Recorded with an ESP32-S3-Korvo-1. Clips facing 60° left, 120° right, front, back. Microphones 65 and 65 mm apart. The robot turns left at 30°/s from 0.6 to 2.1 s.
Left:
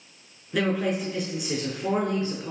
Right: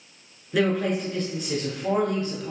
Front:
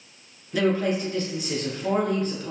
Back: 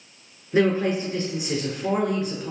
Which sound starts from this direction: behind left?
A woman speaking, at 0.5 s.